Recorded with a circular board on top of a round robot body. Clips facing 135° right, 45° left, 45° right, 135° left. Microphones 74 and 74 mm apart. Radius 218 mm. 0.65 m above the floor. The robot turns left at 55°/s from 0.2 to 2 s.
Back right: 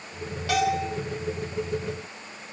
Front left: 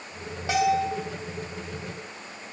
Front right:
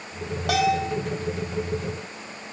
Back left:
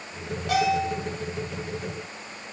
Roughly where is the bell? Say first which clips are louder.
Front left 2 dB, front right 1 dB; ahead right.